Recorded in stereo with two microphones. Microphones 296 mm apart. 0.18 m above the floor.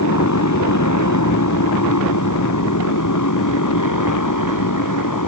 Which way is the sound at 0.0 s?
60° left (ahead or behind).